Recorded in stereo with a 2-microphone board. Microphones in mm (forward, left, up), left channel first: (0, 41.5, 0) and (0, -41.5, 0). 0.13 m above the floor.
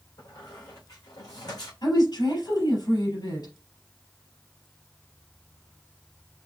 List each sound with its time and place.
0.2 s a squeak: 50° left (ahead or behind), 3.5 m
1.8 s a woman speaking: 50° left (ahead or behind), 3.5 m